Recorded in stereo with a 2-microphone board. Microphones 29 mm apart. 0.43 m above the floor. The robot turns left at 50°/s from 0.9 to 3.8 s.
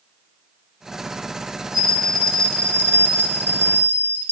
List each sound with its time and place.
1.7 s a bell: 165° right, 0.8 m; by 4.3 s 90° left, 0.8 m